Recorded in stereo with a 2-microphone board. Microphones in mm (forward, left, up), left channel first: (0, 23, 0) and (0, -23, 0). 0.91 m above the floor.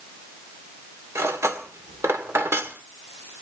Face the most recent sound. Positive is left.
turn(degrees=-85)